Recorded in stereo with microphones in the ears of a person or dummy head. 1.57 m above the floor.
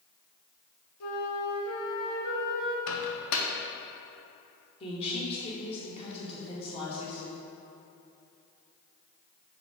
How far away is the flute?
About 1.4 m.